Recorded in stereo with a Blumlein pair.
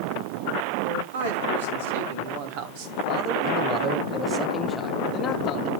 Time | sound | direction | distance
0.8 | a man speaking | 60° right | 3 m